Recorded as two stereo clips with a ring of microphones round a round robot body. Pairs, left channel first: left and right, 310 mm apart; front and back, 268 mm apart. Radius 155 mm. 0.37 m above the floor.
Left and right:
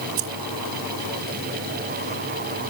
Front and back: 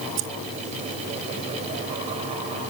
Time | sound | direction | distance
0.2 | keys jangling | 125° right | ?